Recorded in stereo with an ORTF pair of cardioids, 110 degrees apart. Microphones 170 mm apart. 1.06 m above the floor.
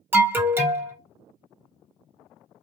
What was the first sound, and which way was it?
An alarm, 10° right.